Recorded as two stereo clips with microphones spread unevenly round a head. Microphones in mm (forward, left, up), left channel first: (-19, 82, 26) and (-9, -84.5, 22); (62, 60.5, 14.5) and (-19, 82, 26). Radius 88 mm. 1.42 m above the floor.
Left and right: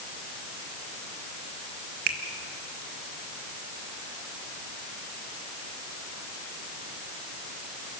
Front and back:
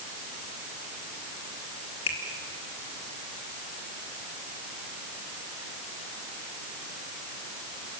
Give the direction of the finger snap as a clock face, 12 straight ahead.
2 o'clock.